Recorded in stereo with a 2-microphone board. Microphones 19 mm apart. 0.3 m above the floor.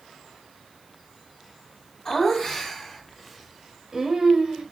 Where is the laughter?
25° left (ahead or behind), 2.5 m; by 4.6 s 40° right (ahead or behind), 1.5 m.